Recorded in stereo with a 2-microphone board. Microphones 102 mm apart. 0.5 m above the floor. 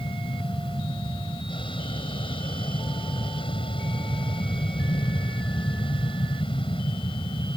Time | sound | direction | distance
0.0 | an aircraft | 55° left (ahead or behind) | ?